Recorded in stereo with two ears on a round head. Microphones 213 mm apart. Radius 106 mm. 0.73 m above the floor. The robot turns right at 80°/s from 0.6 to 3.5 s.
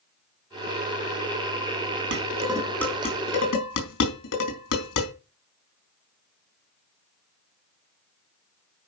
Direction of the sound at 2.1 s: 50° right (ahead or behind).